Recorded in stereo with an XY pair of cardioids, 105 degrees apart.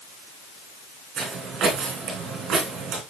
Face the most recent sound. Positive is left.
turn(degrees=-65)